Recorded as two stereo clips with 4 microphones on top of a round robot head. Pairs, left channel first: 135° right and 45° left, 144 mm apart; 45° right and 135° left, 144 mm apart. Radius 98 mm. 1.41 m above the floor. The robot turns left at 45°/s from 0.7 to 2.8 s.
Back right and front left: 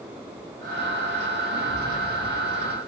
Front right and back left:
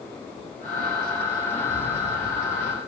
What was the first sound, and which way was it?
A gunshot, 70° left.